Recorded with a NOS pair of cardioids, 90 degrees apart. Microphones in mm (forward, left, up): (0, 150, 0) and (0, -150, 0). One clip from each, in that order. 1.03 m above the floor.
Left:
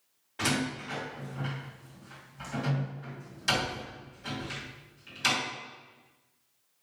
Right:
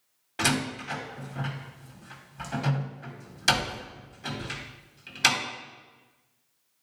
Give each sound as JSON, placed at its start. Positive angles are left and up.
{"t": 0.4, "sound": "a door slam", "azimuth_deg": -50, "distance_m": 2.5}